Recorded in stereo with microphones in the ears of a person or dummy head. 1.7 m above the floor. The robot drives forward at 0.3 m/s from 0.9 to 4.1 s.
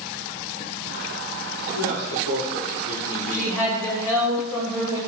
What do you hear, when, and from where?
1.7 s a man speaking: 70° left (ahead or behind), 1.5 m; by 3.6 s 50° left (ahead or behind), 1.8 m
3.3 s a woman speaking: centre (ahead or behind), 1.0 m